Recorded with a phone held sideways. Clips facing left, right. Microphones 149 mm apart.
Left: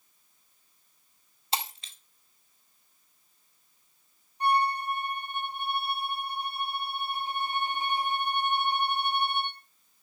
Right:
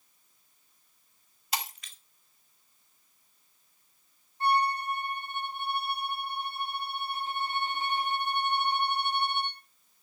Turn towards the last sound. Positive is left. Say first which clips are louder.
# left 1 dB
turn(degrees=15)  # may be behind; listen again after turning